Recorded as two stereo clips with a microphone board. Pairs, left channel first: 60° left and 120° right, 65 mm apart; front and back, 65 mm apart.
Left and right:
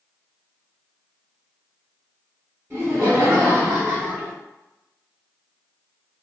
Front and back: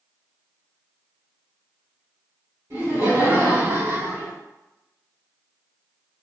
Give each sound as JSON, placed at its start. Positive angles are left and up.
{"t": 2.7, "sound": "laughter", "azimuth_deg": -155, "distance_m": 1.6}